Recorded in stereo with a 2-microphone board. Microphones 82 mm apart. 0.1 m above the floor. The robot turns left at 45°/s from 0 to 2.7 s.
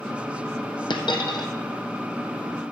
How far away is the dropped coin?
About 1.6 m.